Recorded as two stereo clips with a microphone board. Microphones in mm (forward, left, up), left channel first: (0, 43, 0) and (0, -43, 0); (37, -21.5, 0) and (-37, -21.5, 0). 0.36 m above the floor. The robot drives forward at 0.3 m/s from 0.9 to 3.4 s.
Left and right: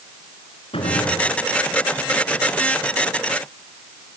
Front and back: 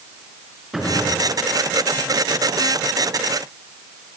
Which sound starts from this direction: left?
A gunshot, at 0.7 s.